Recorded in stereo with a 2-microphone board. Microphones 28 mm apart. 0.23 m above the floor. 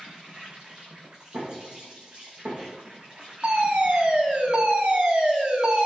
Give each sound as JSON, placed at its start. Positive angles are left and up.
{"t": 0.0, "sound": "an insect", "side_deg": -35, "distance_m": 4.0}
{"t": 1.3, "sound": "knocking", "side_deg": -75, "distance_m": 6.5}
{"t": 3.4, "sound": "a fire alarm", "side_deg": -50, "distance_m": 3.5}